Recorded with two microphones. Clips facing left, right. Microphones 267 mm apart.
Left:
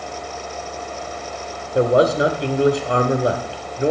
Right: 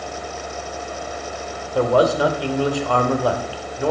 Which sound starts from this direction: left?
A man speaking, at 1.8 s.